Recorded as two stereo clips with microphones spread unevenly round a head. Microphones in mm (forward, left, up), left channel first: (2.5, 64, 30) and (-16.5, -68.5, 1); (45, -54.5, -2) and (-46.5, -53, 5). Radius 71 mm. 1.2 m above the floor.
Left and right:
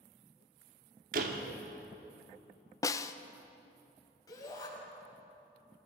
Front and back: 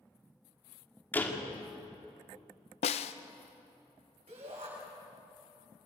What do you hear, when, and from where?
1.1 s a door slam: 70° right, 2 m
2.8 s a snare drum: 10° left, 0.6 m
4.3 s a shout: 145° left, 6.5 m